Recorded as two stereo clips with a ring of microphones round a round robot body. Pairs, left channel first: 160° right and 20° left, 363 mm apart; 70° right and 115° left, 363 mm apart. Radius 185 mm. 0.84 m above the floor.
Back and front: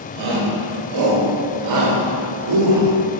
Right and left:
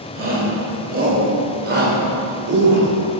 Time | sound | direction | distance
0.1 | a shout | 45° left | 3.5 m